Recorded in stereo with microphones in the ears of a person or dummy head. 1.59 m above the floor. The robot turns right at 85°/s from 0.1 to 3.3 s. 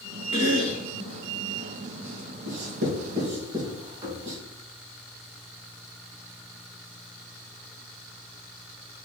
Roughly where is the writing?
Right.